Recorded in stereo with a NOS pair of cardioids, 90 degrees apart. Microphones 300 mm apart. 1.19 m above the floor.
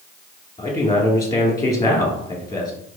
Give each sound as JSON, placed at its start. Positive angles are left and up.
{"t": 0.6, "sound": "a man speaking", "azimuth_deg": 10, "distance_m": 1.8}